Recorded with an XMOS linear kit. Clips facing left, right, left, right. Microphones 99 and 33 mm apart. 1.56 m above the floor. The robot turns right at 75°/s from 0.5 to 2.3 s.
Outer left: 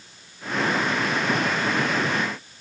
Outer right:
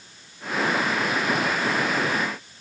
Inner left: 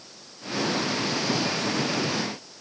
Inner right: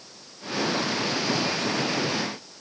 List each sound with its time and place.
Only background noise.